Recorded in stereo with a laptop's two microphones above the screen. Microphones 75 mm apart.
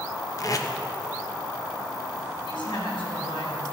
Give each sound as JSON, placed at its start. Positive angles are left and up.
{"t": 0.4, "sound": "tape being pulled", "side_deg": 45, "distance_m": 0.8}
{"t": 2.5, "sound": "a woman speaking", "side_deg": 80, "distance_m": 5.0}